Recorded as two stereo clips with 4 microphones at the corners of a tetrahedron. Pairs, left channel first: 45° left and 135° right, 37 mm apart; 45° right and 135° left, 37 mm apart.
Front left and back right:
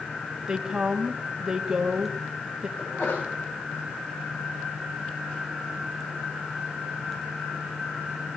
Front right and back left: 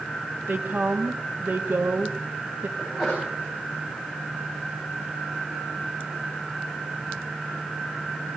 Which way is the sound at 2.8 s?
55° left.